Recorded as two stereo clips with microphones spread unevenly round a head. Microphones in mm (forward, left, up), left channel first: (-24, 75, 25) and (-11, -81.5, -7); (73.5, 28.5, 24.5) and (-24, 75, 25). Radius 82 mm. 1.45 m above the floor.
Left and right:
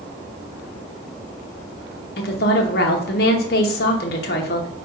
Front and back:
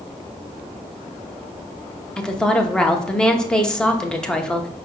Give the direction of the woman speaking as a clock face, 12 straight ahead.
10 o'clock.